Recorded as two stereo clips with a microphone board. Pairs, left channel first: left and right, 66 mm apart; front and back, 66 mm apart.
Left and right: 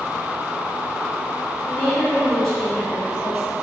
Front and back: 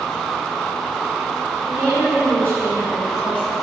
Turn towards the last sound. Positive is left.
turn(degrees=10)